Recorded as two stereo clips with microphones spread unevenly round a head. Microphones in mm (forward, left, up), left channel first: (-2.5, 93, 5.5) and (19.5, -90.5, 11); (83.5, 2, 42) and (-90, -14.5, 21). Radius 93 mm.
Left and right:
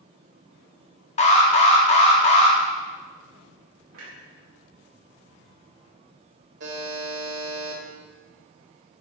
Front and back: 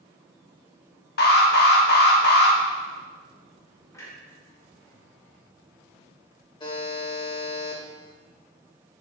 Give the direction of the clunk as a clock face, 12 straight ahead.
2 o'clock.